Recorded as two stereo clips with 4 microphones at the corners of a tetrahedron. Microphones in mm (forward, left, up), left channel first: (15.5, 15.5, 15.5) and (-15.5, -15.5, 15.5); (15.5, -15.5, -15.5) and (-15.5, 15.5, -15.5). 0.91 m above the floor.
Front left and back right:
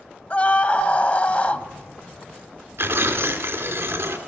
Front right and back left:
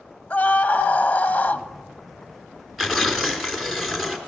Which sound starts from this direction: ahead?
A scream, at 0.3 s.